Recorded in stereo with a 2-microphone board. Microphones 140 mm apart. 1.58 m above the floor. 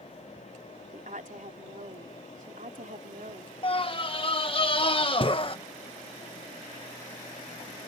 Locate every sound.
0.9 s a woman speaking: 70° right (ahead or behind)
3.6 s a scream: 40° left (ahead or behind)